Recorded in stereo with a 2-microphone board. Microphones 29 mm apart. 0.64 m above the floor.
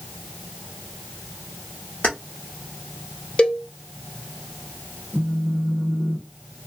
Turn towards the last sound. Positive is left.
turn(degrees=-5)  # may be behind; listen again after turning